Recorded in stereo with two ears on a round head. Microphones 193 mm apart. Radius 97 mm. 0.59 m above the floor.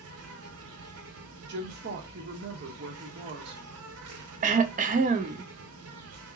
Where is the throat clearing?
35° right (ahead or behind), 0.5 m.